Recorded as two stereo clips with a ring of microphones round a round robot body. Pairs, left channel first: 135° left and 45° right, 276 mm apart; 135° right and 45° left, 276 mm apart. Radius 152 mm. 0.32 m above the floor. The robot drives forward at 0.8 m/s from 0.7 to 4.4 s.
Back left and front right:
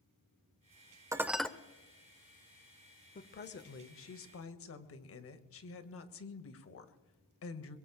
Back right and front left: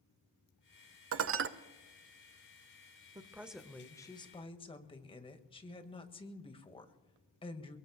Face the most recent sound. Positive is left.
turn(degrees=155)